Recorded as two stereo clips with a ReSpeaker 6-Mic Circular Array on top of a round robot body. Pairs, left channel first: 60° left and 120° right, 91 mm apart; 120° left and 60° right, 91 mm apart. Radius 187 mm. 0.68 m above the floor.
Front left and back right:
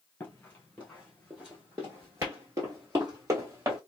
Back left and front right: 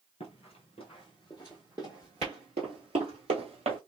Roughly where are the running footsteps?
Behind left.